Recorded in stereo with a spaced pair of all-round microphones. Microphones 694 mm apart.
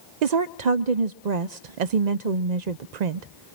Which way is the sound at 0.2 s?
75° right (ahead or behind).